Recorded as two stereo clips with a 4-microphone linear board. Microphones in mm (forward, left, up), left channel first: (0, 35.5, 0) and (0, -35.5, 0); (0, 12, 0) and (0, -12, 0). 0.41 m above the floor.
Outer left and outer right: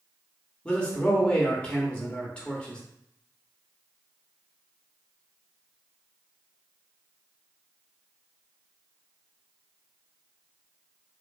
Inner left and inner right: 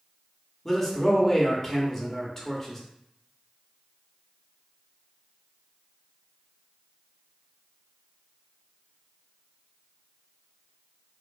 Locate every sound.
0.7 s a man speaking: 15° left (ahead or behind), 1.0 m